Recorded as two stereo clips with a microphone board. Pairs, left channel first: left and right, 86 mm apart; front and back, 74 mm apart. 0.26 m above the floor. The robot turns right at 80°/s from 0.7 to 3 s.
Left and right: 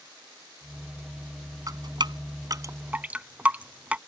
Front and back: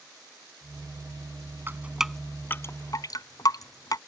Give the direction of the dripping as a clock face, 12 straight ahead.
4 o'clock.